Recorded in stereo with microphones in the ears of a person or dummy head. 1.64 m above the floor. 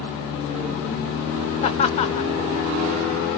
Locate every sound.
1.6 s laughter: 35° left (ahead or behind), 0.6 m